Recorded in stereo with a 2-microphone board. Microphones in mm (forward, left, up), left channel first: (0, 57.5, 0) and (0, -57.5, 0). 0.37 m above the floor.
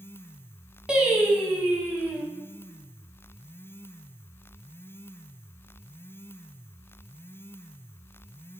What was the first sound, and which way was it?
Singing, 10° right (ahead or behind).